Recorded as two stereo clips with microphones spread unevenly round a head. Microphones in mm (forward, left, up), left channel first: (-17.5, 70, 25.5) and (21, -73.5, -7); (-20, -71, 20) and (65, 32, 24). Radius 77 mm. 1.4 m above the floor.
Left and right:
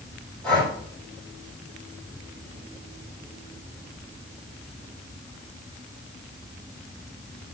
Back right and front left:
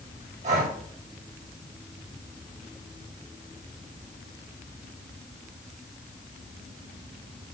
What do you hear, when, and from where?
0.4 s breathing: 25° left, 4 m